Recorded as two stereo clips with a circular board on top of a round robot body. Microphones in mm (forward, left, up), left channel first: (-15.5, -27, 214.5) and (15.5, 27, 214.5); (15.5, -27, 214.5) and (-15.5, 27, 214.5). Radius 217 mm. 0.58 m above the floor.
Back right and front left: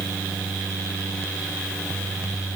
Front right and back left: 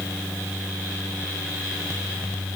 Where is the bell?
I don't hear a bell.